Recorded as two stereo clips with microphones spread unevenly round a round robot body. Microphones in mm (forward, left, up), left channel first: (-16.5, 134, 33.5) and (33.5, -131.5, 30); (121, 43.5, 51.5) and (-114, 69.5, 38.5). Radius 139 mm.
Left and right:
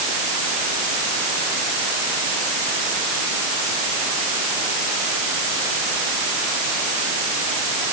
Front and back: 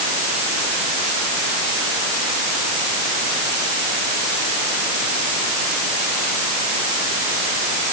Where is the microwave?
I don't hear a microwave.